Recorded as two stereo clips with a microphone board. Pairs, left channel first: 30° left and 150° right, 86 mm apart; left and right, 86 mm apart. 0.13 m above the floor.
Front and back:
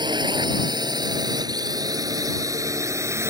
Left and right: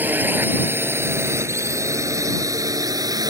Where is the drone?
155° right; by 3.3 s 105° right.